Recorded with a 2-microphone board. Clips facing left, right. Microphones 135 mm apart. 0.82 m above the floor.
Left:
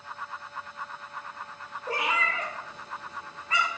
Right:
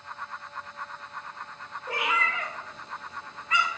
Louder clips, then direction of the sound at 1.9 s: Even; 35° left (ahead or behind).